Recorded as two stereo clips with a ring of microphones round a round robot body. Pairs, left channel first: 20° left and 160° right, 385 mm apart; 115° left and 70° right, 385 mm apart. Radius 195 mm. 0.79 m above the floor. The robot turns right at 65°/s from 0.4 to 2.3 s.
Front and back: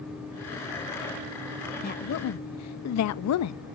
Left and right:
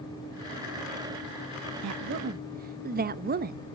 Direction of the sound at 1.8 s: 40° right.